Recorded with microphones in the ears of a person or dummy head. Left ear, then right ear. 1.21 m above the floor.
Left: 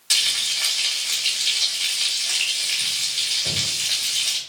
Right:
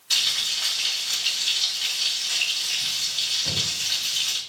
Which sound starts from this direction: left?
Frying, at 0.1 s.